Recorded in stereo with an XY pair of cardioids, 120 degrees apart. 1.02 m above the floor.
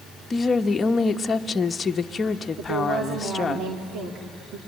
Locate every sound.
0.3 s a woman speaking: 30° left, 1.1 m
2.6 s a woman speaking: 65° right, 3 m